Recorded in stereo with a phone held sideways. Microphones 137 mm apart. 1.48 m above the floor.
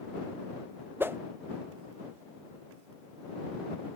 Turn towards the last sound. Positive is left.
turn(degrees=-15)  # may be behind; listen again after turning